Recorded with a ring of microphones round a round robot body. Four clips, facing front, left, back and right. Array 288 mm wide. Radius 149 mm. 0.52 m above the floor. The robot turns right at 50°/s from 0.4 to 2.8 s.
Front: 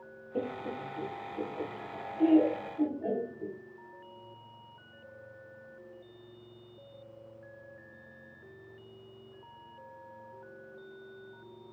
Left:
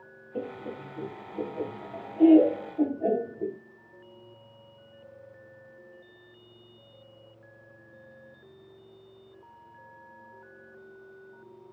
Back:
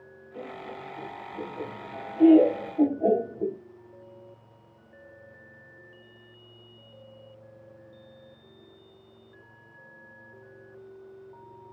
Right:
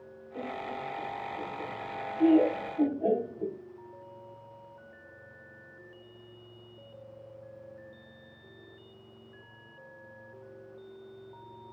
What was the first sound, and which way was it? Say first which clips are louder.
Laughter: left 1 dB, front 4 dB; 40° left.